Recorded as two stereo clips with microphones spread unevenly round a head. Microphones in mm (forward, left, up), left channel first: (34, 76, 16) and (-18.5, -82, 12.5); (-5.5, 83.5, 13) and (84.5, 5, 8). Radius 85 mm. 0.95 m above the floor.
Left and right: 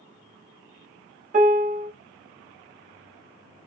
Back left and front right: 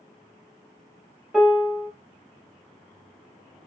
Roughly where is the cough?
I don't hear a cough.